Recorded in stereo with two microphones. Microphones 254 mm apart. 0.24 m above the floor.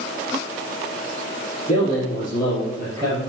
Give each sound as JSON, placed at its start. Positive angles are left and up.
{"t": 1.7, "sound": "a man speaking", "side_deg": 25, "distance_m": 4.5}